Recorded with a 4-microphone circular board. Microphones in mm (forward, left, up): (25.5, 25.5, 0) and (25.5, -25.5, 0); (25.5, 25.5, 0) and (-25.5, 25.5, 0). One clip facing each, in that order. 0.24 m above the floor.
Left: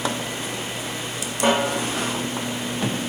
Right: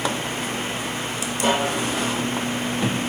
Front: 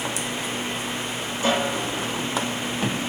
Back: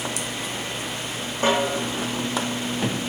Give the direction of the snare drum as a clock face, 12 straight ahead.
7 o'clock.